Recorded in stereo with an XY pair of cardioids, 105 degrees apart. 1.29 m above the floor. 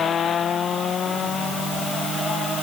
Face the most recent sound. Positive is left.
No sound to turn to.